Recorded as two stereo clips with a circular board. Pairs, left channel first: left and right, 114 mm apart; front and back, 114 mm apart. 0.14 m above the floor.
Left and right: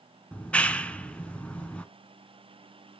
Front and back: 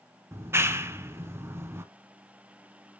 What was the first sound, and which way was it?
A clap, 155° left.